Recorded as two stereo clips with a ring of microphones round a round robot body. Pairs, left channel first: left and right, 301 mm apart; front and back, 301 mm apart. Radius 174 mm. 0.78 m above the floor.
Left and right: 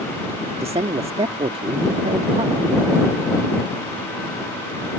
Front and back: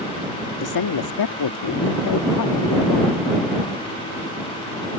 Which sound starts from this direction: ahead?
A man speaking, at 0.6 s.